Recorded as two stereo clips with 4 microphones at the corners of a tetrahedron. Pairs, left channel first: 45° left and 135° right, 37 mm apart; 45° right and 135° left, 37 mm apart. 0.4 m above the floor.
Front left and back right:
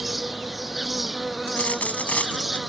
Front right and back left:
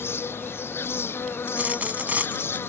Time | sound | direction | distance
0.0 | an insect | 50° right | ?
1.5 | a dropped coin | 90° left | ?